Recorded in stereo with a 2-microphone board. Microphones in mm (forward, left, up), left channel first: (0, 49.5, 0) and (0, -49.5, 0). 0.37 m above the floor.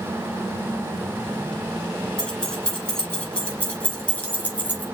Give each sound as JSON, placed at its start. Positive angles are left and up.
{"t": 2.2, "sound": "keys jangling", "side_deg": 10, "distance_m": 5.0}